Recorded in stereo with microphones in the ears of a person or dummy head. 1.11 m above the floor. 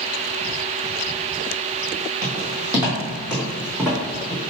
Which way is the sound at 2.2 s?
10° right (ahead or behind).